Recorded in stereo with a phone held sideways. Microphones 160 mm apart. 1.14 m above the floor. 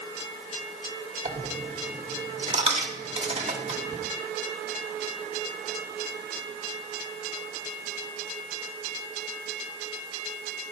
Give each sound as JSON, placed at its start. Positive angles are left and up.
{"t": 1.2, "sound": "a dropped coin", "side_deg": -40, "distance_m": 1.0}